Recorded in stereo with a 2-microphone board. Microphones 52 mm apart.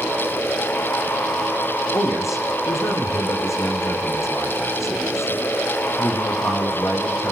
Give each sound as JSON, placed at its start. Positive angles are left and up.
{"t": 1.9, "sound": "a man speaking", "side_deg": 70, "distance_m": 7.0}